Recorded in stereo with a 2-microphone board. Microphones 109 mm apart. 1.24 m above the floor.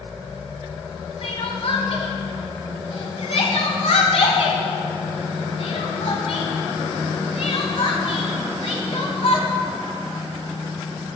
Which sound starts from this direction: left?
Crying, at 1.2 s.